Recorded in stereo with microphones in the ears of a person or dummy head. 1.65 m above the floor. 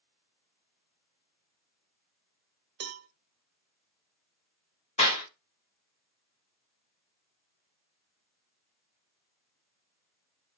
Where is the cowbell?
55° right (ahead or behind), 0.5 m.